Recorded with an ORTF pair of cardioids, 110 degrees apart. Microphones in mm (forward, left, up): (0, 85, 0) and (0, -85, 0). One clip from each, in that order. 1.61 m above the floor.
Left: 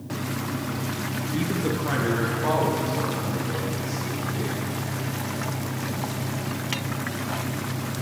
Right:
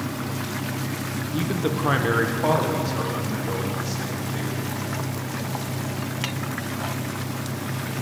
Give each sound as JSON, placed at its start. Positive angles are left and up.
{"t": 1.3, "sound": "a man speaking", "azimuth_deg": -5, "distance_m": 0.8}